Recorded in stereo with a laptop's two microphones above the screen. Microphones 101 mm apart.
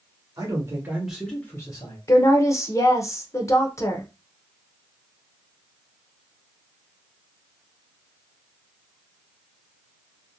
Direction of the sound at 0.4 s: 40° right (ahead or behind).